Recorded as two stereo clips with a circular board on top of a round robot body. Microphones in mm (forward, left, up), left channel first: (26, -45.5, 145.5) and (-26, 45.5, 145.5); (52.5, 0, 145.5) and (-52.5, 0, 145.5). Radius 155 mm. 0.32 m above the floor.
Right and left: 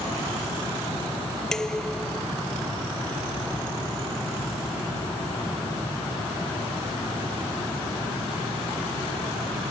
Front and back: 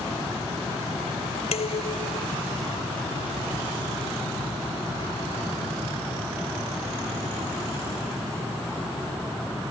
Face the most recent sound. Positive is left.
turn(degrees=25)